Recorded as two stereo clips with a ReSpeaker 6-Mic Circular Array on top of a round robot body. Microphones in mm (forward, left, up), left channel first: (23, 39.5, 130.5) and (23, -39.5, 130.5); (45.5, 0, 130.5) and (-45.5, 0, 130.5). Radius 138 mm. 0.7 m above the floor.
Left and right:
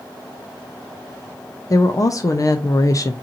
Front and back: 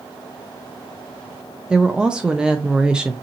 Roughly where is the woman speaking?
Left.